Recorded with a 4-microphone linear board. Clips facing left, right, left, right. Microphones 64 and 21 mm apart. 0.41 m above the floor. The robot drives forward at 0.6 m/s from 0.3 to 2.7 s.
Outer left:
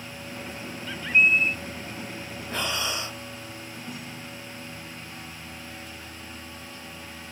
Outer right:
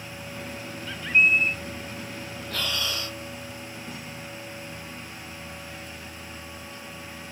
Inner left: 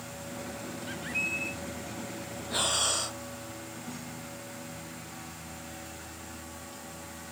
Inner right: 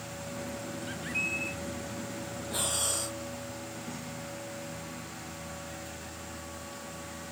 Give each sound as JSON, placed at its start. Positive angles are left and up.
{"t": 0.9, "sound": "a bird", "side_deg": 0}
{"t": 2.5, "sound": "breathing", "side_deg": 20}